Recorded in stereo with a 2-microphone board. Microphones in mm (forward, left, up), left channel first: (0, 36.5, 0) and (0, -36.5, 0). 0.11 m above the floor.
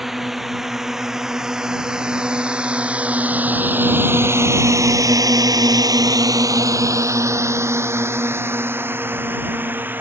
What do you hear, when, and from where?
0.0 s a drone: 5° right (ahead or behind); by 10.0 s 25° right (ahead or behind)